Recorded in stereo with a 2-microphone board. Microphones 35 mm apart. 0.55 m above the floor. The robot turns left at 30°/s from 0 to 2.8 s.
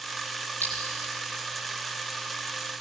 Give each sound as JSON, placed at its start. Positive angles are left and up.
{"t": 0.6, "sound": "a clink", "side_deg": 80, "distance_m": 9.0}